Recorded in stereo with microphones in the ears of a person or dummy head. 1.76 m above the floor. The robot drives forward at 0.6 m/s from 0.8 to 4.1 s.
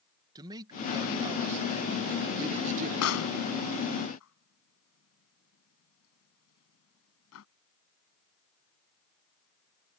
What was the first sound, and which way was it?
A man speaking, 20° right (ahead or behind).